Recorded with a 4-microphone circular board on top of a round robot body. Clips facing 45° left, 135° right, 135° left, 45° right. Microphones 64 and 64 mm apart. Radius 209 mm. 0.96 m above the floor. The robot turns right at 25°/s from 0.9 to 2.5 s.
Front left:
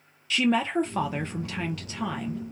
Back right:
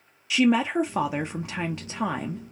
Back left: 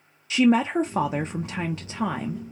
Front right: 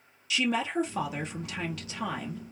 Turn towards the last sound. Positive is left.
turn(degrees=-170)